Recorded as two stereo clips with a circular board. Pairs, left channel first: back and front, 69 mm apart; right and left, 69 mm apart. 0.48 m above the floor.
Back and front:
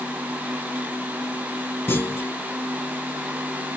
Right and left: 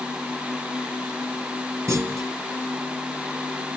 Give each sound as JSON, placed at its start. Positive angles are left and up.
{"t": 1.9, "sound": "a clunk", "azimuth_deg": 130, "distance_m": 0.9}